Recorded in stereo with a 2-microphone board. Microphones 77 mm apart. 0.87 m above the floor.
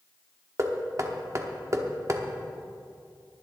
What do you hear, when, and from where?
0.6 s knocking: 40° right (ahead or behind), 1.1 m